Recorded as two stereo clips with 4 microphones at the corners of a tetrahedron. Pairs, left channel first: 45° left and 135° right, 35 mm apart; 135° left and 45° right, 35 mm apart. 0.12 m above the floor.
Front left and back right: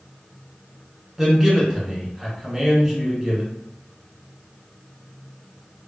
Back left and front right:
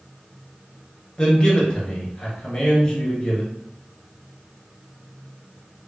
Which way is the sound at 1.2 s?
160° left.